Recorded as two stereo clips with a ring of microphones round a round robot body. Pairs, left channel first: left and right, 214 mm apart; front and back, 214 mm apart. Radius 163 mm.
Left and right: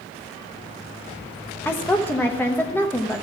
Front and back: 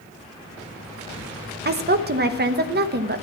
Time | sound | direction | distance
1.6 | a woman speaking | 170° left | 0.9 m